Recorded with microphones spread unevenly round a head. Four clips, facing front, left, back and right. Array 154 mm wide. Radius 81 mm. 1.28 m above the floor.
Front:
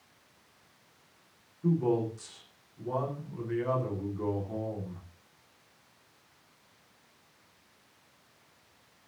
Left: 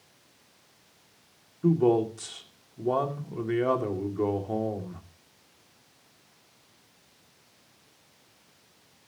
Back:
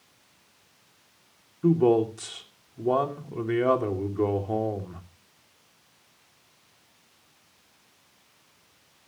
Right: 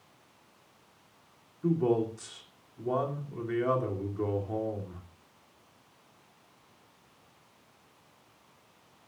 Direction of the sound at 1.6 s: 155° left.